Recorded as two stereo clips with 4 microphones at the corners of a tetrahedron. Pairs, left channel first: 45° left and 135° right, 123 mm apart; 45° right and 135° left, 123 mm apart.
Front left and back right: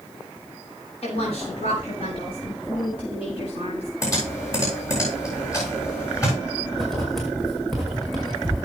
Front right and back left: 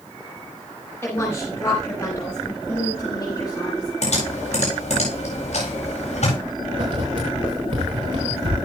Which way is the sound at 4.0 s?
20° right.